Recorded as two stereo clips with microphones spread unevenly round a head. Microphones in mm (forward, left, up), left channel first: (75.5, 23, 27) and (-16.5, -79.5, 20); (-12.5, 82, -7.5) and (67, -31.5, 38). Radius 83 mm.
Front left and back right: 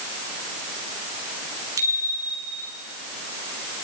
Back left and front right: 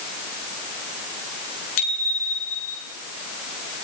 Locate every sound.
1.8 s a bicycle bell: 155° left, 8.5 m; by 2.8 s 160° left, 9 m